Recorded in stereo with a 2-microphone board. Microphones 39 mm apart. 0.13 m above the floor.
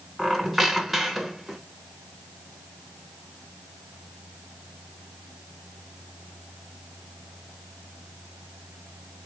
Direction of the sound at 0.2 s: Centre (ahead or behind).